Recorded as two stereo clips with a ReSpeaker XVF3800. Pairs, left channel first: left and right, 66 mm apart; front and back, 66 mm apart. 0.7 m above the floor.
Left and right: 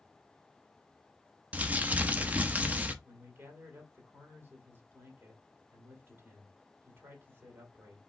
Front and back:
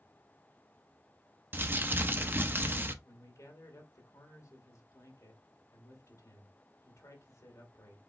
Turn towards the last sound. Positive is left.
turn(degrees=-35)